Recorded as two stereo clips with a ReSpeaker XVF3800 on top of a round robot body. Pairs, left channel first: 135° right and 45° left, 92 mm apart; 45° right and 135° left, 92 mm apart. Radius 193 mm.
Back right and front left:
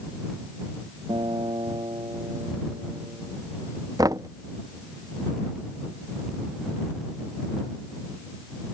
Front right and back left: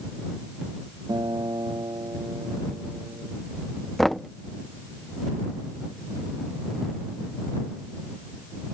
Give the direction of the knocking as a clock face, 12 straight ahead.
11 o'clock.